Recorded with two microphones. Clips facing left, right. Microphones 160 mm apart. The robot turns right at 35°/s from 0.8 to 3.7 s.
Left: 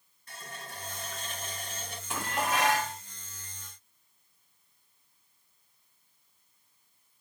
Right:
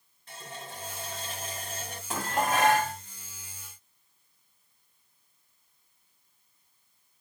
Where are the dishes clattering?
130° right, 1.1 m; by 3.0 s 100° right, 1.1 m.